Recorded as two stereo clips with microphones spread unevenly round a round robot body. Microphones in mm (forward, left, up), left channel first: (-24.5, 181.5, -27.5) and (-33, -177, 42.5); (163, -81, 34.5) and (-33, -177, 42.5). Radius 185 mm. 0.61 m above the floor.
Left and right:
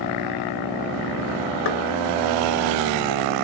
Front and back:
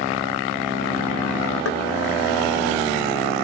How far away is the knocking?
About 2.5 m.